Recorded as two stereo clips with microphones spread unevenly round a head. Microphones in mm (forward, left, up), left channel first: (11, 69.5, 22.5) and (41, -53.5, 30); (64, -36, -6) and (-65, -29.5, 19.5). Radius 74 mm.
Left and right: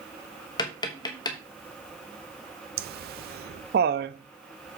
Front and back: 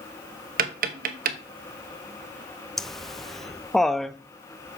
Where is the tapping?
170° left, 0.9 m.